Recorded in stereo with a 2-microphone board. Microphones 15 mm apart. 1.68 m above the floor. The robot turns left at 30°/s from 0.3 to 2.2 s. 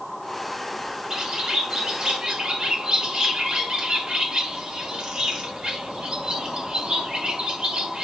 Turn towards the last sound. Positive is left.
turn(degrees=-85)